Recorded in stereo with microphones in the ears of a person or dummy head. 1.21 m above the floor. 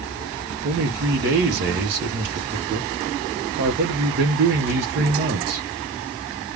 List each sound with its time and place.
0.6 s a man speaking: 55° right (ahead or behind), 0.8 m